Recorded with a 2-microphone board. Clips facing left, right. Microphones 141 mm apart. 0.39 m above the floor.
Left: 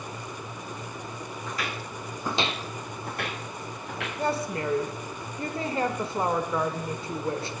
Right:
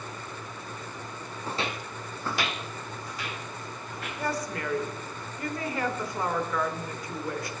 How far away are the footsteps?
About 1.3 m.